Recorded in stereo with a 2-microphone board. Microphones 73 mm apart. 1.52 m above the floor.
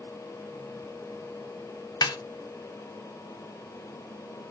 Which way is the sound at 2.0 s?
70° left (ahead or behind).